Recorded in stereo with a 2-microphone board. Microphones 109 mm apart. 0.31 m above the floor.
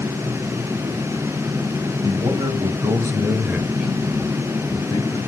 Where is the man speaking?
50° right (ahead or behind), 1.4 m; by 5.3 s 40° left (ahead or behind), 1.2 m.